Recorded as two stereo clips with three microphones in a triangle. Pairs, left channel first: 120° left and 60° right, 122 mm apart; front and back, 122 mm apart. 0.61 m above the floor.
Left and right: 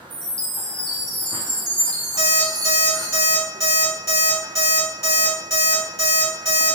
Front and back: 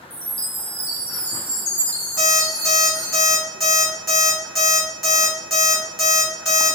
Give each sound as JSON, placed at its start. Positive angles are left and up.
{"t": 0.1, "sound": "a chime", "azimuth_deg": 45, "distance_m": 1.0}
{"t": 2.2, "sound": "an alarm clock", "azimuth_deg": -90, "distance_m": 1.7}